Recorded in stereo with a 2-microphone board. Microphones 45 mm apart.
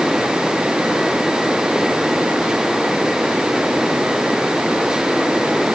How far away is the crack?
No crack in this recording.